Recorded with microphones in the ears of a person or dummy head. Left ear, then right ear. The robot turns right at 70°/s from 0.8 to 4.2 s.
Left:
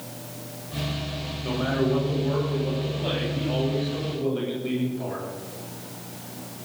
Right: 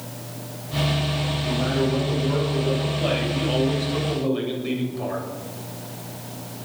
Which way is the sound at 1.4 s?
100° left.